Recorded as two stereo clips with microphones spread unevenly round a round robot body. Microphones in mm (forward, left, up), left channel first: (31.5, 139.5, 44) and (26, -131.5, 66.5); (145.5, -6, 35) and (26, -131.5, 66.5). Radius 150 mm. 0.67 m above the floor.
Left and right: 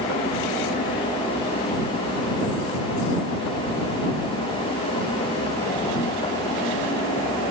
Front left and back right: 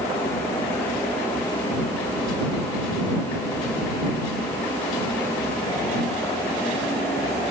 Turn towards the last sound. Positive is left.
No sound to turn to.